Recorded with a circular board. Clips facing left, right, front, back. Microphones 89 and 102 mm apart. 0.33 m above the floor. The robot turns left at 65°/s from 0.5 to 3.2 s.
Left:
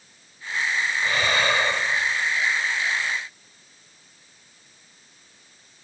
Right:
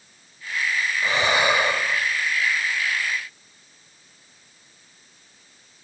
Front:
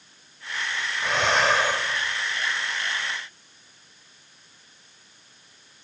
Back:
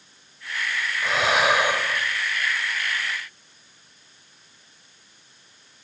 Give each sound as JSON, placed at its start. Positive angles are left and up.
{"t": 1.0, "sound": "breathing", "azimuth_deg": -90}